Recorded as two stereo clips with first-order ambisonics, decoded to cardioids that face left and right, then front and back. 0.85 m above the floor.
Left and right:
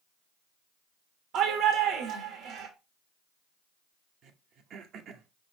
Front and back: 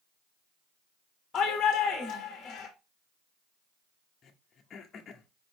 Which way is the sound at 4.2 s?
55° right.